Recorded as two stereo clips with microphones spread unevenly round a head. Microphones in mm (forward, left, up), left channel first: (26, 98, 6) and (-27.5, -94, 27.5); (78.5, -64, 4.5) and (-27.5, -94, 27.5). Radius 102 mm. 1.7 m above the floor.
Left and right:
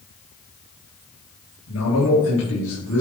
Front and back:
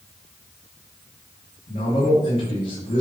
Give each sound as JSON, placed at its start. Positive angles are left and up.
{"t": 1.7, "sound": "a man speaking", "azimuth_deg": 55, "distance_m": 2.5}